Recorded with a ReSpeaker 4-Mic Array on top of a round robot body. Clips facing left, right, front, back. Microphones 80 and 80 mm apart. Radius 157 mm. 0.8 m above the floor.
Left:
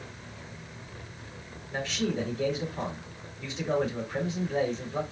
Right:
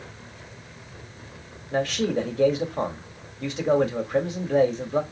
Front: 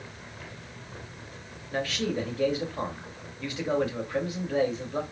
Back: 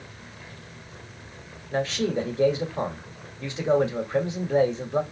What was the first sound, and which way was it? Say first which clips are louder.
A man speaking: right 6 dB, back 4 dB; 115° right.